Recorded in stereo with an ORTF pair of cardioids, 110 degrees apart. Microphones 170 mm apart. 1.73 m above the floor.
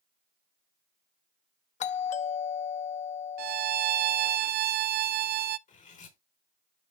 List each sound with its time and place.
1.8 s a doorbell: 45° left, 0.8 m
3.4 s a violin: 70° right, 0.6 m
5.7 s cutlery clinking: 50° left, 3.5 m